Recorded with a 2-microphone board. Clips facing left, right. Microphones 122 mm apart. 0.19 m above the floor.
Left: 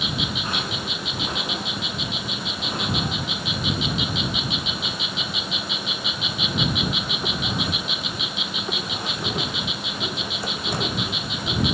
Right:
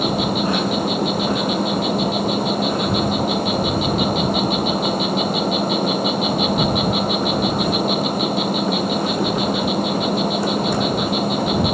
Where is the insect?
50° right (ahead or behind).